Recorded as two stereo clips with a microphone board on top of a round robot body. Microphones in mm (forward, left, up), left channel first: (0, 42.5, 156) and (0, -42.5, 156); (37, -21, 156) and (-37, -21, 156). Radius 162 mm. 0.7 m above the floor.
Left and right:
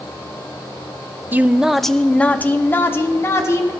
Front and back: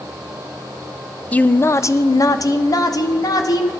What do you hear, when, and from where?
1.3 s a woman speaking: 50° right, 0.5 m; by 3.7 s 35° left, 1.3 m